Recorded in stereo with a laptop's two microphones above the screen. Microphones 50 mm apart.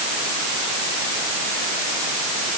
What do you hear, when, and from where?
Only background noise.